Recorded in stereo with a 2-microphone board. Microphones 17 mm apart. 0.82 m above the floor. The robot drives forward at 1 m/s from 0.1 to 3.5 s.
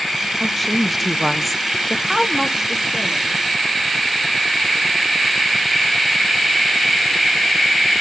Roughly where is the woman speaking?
Centre.